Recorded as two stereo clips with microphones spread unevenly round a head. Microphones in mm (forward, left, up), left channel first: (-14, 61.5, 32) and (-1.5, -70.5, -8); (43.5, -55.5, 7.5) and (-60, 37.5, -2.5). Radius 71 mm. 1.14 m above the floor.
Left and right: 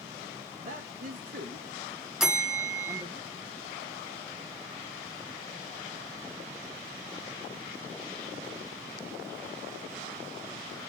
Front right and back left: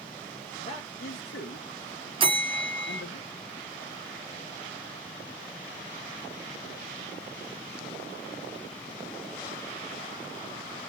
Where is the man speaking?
90° right, 1.3 m; by 3.2 s 20° right, 1.0 m.